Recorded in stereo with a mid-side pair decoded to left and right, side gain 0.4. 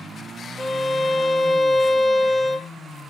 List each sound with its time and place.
0.6 s a violin: 25° left, 0.5 m